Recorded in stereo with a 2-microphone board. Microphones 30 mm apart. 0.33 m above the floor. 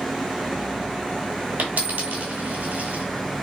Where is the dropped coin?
75° right (ahead or behind), 0.9 m.